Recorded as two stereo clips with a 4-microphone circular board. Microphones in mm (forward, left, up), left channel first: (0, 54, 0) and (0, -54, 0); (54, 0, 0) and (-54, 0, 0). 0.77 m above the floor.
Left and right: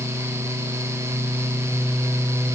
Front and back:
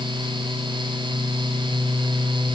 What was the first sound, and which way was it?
Only background noise.